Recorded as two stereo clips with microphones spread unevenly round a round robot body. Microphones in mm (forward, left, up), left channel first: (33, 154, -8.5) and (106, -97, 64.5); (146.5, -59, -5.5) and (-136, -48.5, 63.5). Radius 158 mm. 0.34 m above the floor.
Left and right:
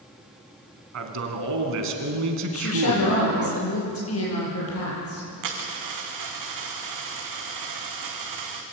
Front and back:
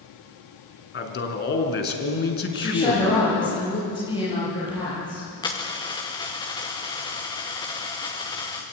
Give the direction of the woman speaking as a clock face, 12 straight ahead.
10 o'clock.